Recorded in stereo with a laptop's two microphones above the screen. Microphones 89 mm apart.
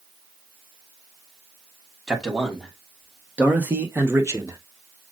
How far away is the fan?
I don't hear a fan.